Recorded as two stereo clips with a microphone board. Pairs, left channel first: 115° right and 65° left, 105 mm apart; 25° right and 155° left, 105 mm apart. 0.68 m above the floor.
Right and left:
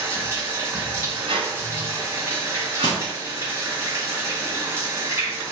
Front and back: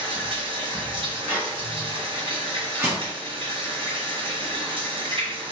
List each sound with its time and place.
0.0 s running water: 130° left, 1.6 m
1.3 s a squeak: 85° left, 1.4 m
2.8 s crushing: 145° right, 2 m